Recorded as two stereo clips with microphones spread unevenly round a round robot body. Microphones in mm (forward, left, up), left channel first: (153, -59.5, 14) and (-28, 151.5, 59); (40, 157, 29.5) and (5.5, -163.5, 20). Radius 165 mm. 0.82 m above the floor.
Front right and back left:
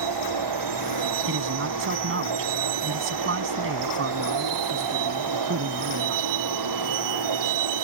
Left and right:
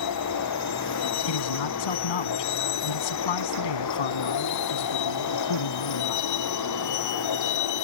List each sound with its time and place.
0.0 s a vehicle: 130° left; by 7.8 s 125° left
1.3 s a man speaking: 85° left